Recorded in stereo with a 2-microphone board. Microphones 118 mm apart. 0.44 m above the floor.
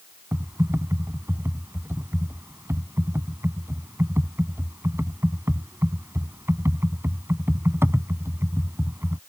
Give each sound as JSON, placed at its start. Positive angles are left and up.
{"t": 0.3, "sound": "typing on a keyboard", "side_deg": -20}